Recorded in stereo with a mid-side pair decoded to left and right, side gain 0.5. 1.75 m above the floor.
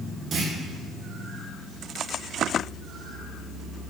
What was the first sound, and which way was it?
A clunk, 50° right.